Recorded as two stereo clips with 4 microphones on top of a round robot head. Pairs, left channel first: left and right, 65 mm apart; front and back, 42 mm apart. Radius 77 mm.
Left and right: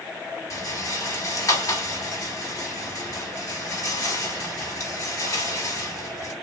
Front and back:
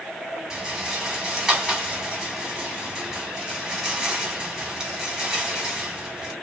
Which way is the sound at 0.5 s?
105° left.